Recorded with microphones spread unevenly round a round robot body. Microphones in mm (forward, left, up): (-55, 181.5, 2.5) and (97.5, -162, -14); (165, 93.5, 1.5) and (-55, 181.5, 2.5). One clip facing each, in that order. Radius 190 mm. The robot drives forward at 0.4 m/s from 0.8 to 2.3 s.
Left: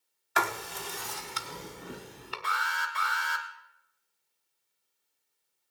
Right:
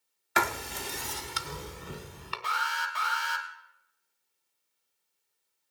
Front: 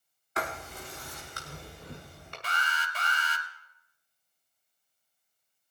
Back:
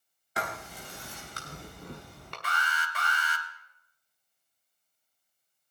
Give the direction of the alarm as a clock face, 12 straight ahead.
11 o'clock.